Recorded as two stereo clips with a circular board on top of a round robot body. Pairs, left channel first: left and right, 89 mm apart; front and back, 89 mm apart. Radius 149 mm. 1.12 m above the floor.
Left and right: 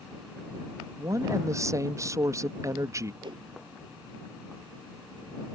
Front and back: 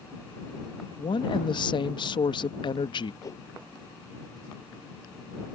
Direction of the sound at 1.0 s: 35° right.